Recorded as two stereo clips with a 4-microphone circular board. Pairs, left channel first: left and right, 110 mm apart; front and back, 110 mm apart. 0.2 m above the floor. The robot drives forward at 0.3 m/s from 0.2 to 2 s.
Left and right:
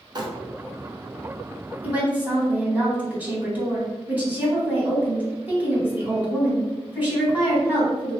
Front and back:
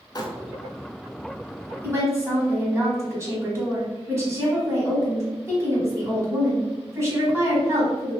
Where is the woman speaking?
145° right, 1.3 m; by 8.2 s 150° right, 1.3 m.